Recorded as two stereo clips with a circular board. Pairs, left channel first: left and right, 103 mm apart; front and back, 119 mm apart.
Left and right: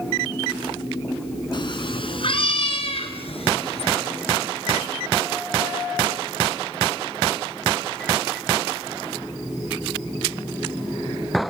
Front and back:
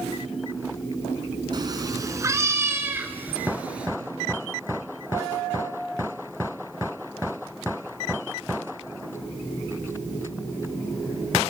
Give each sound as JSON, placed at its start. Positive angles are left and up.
{"t": 1.5, "sound": "a cat meowing", "azimuth_deg": 130, "distance_m": 1.5}